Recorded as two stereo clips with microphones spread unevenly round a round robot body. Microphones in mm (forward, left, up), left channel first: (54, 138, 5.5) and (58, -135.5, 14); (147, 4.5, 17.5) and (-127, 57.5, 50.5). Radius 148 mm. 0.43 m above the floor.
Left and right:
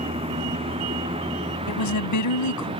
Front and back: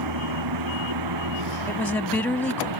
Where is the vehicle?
165° right.